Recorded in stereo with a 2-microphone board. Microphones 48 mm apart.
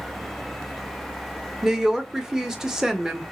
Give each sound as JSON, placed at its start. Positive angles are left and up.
{"t": 1.6, "sound": "a woman speaking", "side_deg": -10, "distance_m": 0.8}